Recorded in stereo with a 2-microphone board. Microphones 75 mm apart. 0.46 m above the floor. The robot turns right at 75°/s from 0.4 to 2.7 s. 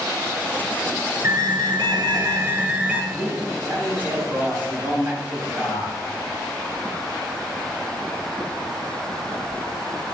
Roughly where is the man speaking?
Right.